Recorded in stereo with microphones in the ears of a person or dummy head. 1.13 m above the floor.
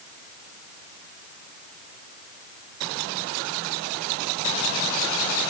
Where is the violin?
No violin in this recording.